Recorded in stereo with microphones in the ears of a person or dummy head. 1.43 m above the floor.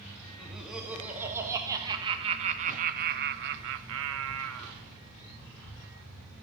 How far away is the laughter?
About 2 m.